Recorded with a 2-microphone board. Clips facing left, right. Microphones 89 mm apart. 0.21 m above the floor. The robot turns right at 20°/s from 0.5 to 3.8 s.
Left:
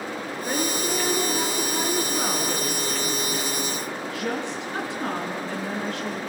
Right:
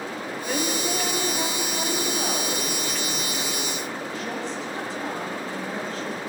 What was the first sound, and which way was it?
A woman speaking, 35° left.